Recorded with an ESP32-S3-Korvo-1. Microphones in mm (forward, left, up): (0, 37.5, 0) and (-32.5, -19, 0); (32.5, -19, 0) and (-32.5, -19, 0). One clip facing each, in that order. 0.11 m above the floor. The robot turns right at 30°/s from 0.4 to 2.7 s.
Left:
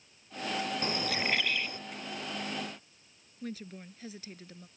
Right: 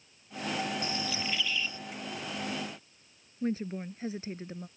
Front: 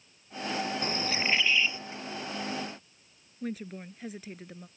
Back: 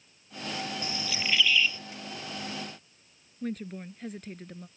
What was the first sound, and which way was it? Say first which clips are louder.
A bird: left 2 dB, front 4 dB; 35° left.